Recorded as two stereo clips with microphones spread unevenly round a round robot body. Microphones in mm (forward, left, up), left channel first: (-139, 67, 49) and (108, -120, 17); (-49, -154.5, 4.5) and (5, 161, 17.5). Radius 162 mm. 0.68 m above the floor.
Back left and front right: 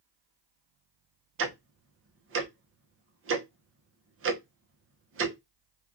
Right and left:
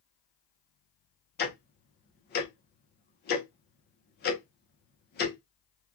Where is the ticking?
55° right, 0.7 m.